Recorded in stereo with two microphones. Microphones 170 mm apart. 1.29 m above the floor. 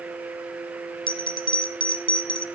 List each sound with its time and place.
1.1 s a bell: 30° left (ahead or behind), 0.5 m